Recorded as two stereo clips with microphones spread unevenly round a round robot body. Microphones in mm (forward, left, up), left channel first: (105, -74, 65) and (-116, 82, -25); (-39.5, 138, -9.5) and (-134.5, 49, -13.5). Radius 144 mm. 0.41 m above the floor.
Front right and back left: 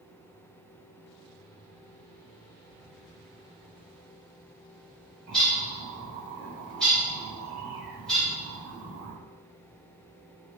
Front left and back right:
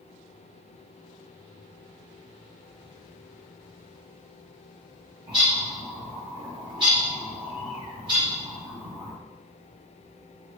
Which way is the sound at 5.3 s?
145° right.